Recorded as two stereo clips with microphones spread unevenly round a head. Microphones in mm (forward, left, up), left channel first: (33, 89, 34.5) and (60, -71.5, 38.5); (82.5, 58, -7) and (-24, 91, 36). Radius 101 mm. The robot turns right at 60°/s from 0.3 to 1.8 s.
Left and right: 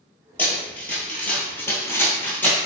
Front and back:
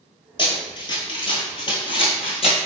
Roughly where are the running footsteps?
Ahead left.